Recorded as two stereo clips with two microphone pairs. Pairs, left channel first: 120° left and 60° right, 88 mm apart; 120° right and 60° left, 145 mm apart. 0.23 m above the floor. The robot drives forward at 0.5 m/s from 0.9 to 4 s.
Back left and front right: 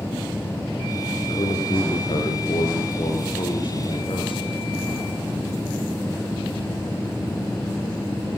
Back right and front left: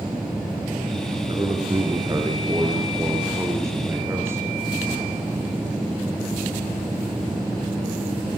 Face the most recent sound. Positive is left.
turn(degrees=135)